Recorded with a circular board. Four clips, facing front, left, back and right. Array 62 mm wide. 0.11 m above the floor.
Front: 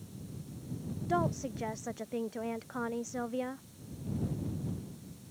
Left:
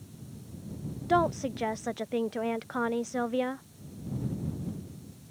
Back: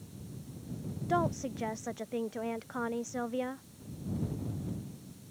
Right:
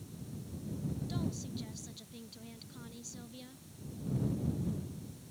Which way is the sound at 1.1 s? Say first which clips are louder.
Left 13 dB, back 1 dB; 95° left.